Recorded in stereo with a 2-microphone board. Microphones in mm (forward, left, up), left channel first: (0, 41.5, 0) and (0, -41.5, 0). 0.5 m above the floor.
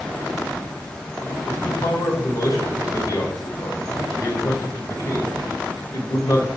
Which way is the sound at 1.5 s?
50° left (ahead or behind).